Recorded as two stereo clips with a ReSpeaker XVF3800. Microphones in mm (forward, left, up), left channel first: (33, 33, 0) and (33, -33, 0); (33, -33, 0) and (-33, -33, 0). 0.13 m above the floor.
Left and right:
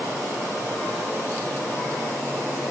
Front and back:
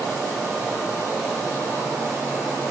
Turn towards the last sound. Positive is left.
No sound to turn to.